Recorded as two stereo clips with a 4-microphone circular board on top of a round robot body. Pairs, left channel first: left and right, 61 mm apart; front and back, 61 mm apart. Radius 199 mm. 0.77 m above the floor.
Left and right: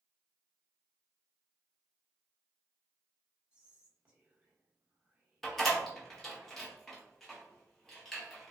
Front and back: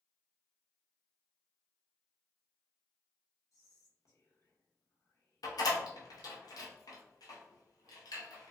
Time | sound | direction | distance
3.5 | whispering | 20° right | 1.2 m
5.4 | a door slam | 5° left | 0.8 m